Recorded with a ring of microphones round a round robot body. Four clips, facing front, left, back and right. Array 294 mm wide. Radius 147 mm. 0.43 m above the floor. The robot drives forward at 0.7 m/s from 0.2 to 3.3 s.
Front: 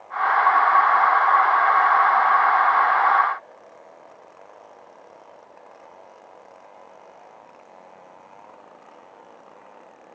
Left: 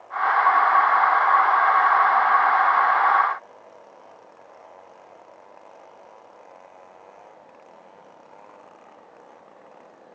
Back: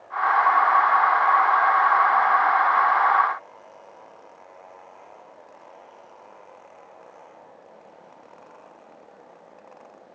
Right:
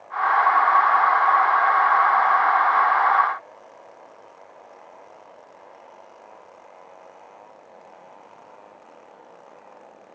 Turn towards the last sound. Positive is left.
No sound to turn to.